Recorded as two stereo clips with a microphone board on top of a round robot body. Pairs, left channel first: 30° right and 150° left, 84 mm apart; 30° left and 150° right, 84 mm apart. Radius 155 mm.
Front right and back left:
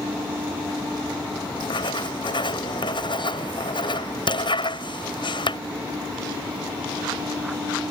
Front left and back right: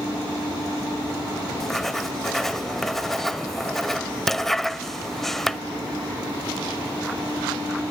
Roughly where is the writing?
Ahead right.